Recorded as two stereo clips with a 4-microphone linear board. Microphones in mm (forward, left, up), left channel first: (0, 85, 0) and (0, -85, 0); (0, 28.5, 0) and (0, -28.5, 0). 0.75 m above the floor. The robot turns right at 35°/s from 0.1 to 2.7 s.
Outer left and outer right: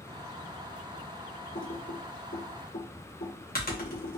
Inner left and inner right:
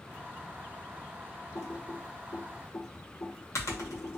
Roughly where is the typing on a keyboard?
Left.